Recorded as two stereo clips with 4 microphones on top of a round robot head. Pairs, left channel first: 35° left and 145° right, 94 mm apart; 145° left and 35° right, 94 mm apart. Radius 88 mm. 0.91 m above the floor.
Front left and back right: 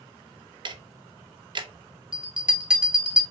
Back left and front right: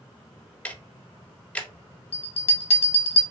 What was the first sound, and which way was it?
Ticking, 145° right.